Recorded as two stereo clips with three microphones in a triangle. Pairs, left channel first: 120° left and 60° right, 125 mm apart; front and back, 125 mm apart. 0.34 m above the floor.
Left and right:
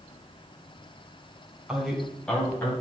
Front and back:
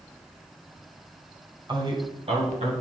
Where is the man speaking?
140° right, 2 m; by 2.7 s 165° right, 2.5 m.